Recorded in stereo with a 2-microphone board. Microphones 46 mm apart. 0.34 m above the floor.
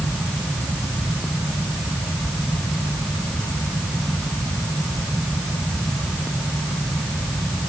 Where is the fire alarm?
No fire alarm in this recording.